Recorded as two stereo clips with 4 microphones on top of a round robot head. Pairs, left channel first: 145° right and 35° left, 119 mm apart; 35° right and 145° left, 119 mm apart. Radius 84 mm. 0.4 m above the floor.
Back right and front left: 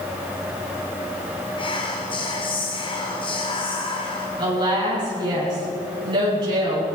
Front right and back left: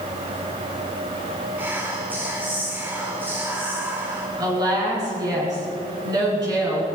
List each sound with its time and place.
1.6 s whispering: 150° right, 1.6 m
4.4 s a woman speaking: 90° left, 6.5 m